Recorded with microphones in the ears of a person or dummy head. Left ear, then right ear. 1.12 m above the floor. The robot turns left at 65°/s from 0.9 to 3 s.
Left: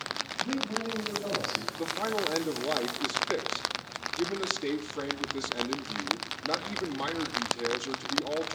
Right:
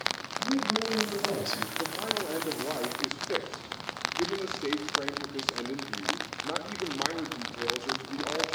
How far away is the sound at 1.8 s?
About 2 m.